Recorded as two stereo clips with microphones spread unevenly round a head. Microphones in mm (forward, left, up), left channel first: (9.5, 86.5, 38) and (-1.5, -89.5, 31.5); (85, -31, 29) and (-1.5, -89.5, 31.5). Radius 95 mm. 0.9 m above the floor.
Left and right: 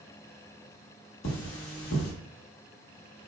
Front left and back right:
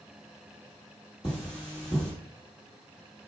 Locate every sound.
1.2 s cutlery clinking: 100° left, 0.8 m